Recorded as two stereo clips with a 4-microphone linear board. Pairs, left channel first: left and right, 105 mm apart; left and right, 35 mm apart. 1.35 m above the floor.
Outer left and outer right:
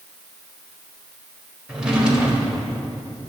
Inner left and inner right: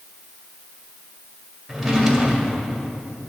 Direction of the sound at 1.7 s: 10° right (ahead or behind).